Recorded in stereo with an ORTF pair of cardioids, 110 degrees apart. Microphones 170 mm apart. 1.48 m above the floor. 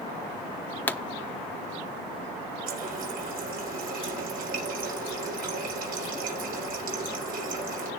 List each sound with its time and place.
0.9 s a pop: 10° left, 0.7 m
2.7 s a running tap: 60° right, 4 m